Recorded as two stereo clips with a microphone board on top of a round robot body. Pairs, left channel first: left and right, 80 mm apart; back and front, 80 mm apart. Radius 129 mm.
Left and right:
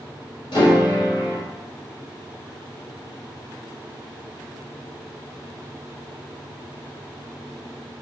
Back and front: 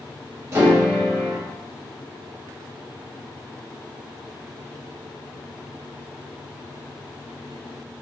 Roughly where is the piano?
Ahead left.